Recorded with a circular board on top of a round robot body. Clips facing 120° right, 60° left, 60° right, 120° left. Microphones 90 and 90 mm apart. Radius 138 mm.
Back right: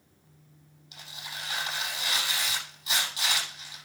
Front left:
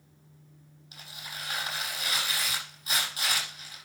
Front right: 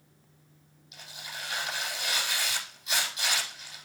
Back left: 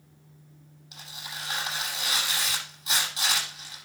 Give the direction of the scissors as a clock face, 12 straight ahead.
I don't hear scissors.